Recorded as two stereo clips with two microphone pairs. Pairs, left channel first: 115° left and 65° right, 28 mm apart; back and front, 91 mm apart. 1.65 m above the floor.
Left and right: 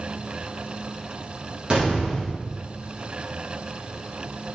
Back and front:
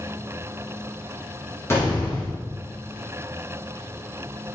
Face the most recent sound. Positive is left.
turn(degrees=-120)